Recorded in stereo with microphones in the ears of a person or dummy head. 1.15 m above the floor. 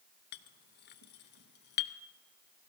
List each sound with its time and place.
0.3 s a clink: 60° left (ahead or behind), 0.6 m